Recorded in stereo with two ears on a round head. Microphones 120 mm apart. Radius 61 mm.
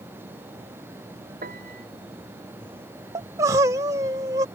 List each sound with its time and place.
1.4 s a piano: 65° right (ahead or behind)
3.1 s crying: 25° right (ahead or behind)